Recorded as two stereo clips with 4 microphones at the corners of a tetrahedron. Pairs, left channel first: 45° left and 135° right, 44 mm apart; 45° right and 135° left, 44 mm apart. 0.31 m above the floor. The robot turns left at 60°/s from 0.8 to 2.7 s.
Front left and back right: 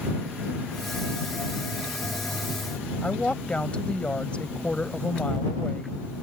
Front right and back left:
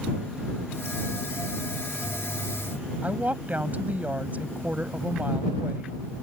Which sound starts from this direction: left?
A woman speaking, at 3.0 s.